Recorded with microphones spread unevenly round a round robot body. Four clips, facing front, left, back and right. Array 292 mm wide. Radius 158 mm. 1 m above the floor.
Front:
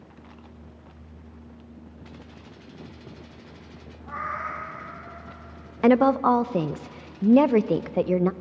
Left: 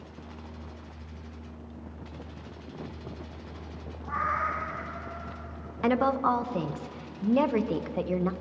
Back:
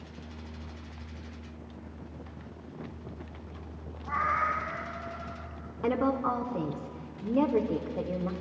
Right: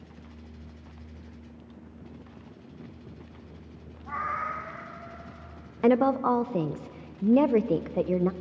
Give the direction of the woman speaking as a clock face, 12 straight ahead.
12 o'clock.